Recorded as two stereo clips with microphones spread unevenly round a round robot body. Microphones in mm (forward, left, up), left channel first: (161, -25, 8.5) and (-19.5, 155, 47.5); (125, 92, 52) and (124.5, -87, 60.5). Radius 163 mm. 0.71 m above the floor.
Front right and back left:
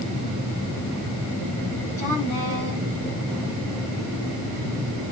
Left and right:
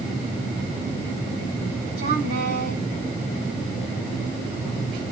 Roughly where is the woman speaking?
Behind right.